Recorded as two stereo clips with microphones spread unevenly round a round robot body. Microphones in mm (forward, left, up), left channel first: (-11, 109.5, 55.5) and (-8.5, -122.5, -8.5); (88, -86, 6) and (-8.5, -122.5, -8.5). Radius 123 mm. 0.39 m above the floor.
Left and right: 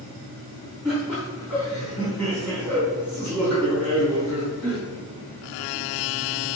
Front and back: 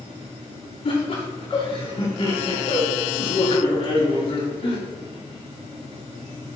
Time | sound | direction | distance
0.8 | laughter | 10° right | 4.5 m